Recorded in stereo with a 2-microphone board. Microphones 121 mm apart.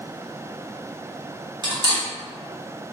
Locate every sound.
1.6 s cutlery clinking: 35° right (ahead or behind), 1.1 m